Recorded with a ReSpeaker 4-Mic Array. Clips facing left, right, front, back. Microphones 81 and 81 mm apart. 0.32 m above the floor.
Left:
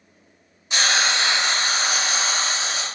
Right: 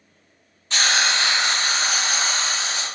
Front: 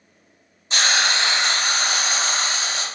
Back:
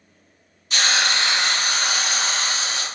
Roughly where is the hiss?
Ahead left.